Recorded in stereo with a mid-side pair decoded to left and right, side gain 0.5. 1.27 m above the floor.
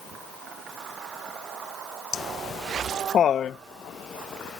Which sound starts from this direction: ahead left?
Laughter, at 2.1 s.